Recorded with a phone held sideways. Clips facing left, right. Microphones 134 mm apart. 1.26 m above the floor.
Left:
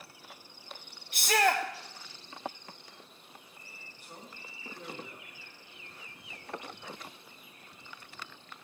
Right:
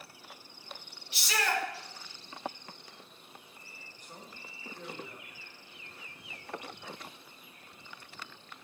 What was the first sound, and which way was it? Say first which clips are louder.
A shout: left 6 dB; 55° left (ahead or behind).